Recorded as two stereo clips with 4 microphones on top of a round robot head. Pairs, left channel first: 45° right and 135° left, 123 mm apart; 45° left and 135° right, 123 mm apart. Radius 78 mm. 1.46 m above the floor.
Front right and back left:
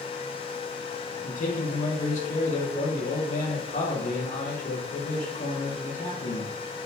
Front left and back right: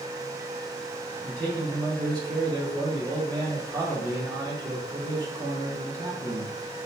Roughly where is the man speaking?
Right.